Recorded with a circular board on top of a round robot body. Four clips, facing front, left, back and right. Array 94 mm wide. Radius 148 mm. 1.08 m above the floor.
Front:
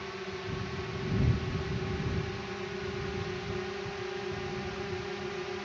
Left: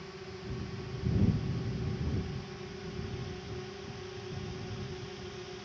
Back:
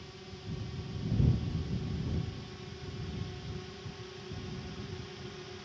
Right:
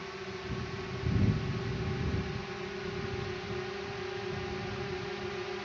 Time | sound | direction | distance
0.0 | a drone | 30° right | ?